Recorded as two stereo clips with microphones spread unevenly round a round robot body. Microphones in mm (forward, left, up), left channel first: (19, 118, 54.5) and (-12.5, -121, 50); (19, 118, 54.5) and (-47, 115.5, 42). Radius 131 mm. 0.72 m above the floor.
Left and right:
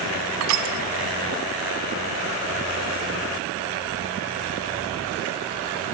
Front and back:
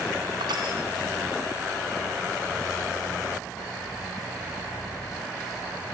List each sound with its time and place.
0.4 s crushing: 120° right, 1.4 m